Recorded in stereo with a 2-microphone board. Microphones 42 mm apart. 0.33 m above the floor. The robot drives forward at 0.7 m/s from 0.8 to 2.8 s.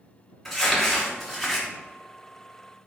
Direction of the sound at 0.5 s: 5° right (ahead or behind).